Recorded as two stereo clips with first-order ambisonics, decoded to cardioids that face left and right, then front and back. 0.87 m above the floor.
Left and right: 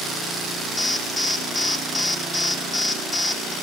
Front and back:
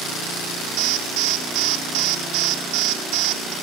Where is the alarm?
170° left, 2.5 m.